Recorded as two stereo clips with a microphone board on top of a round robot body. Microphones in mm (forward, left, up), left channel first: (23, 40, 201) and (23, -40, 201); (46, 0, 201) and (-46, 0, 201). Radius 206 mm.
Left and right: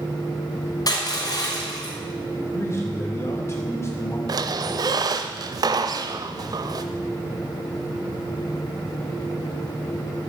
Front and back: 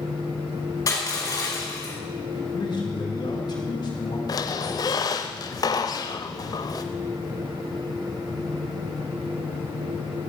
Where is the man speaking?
40° left, 4 m.